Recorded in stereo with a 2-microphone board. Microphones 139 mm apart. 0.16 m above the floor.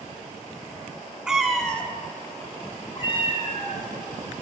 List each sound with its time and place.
1.3 s a cat meowing: 5° right (ahead or behind), 0.8 m; by 3.8 s 45° left (ahead or behind), 1.3 m